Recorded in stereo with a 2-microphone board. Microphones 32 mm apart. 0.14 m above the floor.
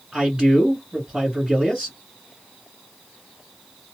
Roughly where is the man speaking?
Right.